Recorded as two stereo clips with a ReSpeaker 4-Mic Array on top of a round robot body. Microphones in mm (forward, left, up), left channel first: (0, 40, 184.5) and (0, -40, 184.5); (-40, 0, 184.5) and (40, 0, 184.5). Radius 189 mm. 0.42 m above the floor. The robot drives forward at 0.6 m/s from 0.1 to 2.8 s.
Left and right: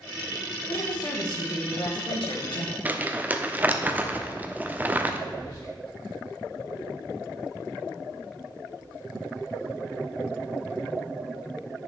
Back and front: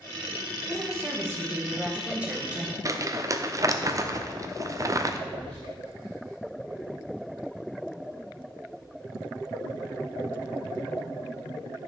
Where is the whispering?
45° left, 3 m.